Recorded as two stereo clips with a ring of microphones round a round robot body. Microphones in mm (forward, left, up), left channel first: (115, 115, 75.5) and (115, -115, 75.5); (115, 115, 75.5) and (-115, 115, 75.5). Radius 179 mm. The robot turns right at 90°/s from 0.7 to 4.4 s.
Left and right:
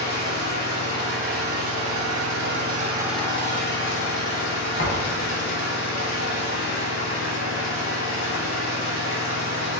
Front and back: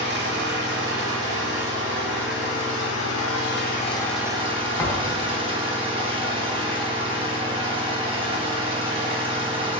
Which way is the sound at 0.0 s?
140° left.